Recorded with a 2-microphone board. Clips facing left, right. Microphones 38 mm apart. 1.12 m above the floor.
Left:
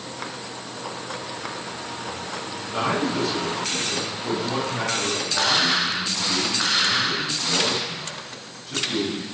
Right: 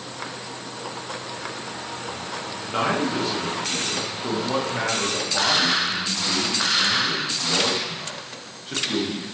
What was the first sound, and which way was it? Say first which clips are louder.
A man speaking: right 1 dB; 40° right (ahead or behind).